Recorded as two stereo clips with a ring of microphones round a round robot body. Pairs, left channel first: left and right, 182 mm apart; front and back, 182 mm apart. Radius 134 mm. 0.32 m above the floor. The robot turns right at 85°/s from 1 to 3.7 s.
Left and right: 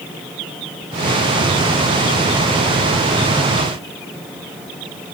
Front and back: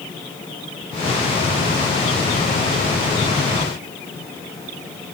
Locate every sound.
Only background noise.